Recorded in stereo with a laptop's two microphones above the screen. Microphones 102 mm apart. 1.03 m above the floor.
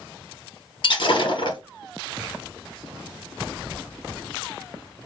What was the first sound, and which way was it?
Breaking glass, 60° left (ahead or behind).